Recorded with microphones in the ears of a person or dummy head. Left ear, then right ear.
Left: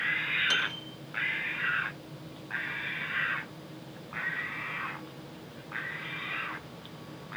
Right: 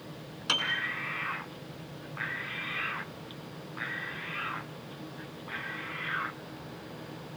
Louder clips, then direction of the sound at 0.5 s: Even; 75° right (ahead or behind).